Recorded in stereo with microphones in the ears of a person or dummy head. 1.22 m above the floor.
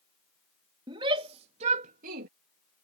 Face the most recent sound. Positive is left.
turn(degrees=-55)  # may be behind; listen again after turning